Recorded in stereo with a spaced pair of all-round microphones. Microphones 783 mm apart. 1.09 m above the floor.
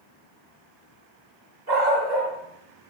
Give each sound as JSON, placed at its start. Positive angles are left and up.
{"t": 1.7, "sound": "a dog barking", "side_deg": -70, "distance_m": 3.0}